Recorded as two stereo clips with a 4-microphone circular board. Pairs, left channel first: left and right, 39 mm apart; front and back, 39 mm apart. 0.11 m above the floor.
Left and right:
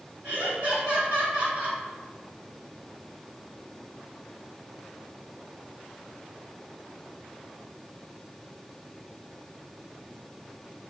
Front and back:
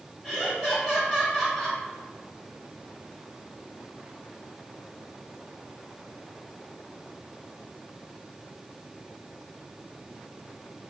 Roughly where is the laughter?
Right.